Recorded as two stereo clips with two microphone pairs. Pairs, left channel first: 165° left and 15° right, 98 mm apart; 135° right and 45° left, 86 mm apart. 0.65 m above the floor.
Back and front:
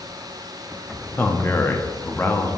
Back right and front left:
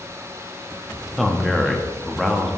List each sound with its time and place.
1.2 s a man speaking: 145° left, 0.6 m